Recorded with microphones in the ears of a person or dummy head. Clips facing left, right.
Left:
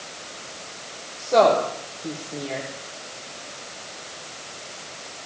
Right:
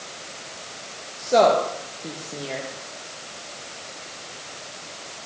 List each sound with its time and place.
1.2 s a woman speaking: 5° right (ahead or behind), 2.0 m